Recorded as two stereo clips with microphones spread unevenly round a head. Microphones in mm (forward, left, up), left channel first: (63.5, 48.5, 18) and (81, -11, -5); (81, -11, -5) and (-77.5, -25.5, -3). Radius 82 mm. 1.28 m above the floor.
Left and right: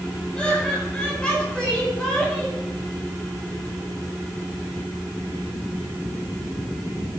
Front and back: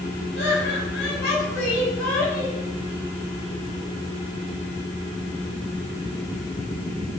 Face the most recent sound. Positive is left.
turn(degrees=20)